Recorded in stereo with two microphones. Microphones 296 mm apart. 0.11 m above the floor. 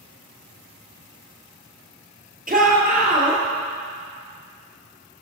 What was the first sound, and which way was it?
A shout, 30° right (ahead or behind).